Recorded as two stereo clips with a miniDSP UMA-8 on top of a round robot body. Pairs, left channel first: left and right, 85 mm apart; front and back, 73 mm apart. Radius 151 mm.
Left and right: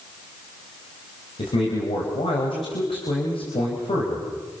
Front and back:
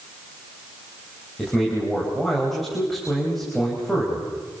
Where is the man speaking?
85° left, 5 m.